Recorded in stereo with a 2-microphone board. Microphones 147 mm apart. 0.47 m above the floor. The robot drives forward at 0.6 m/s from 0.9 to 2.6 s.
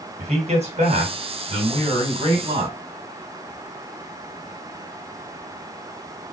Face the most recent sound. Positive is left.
turn(degrees=-35)  # may be behind; listen again after turning